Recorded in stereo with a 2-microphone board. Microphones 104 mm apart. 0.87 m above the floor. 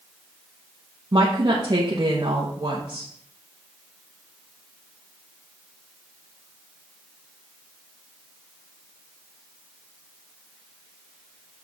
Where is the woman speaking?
45° right (ahead or behind), 1.1 m.